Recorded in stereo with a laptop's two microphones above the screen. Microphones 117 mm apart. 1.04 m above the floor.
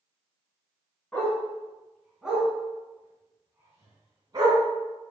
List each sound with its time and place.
1.1 s a dog barking: 10° left (ahead or behind), 3 m; by 4.6 s 35° right (ahead or behind), 3 m